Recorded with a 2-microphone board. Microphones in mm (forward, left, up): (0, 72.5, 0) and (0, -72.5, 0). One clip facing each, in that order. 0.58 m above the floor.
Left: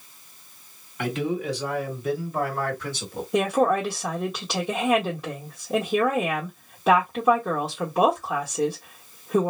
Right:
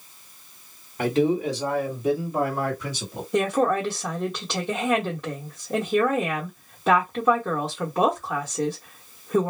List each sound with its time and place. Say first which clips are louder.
1.0 s a man speaking: right 5 dB; 35° right (ahead or behind), 2.5 m; by 3.2 s 10° right (ahead or behind), 1.5 m
3.3 s a woman speaking: left 1 dB; centre (ahead or behind), 1.0 m